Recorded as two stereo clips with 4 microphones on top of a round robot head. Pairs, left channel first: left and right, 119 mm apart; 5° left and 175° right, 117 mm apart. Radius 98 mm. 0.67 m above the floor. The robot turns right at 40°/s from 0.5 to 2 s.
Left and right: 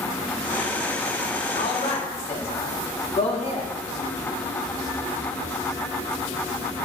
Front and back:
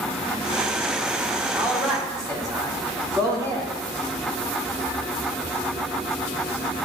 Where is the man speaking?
110° left, 1.7 m; by 3.7 s 130° left, 1.7 m.